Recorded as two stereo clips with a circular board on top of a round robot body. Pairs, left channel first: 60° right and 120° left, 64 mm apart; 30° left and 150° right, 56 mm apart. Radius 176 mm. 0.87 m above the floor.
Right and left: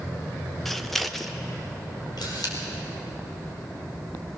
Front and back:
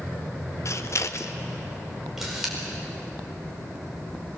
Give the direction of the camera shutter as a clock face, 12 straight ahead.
2 o'clock.